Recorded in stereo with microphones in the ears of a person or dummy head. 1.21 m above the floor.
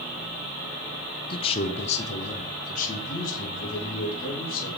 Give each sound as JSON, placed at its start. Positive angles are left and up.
{"t": 1.3, "sound": "a man speaking", "side_deg": 25, "distance_m": 0.6}